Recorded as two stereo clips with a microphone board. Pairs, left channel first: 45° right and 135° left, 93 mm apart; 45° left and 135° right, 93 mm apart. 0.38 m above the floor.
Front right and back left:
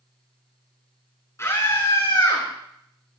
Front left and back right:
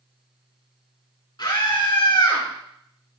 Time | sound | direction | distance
1.4 | a scream | 10° left | 4 m